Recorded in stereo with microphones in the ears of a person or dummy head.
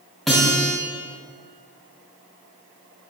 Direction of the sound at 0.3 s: Centre (ahead or behind).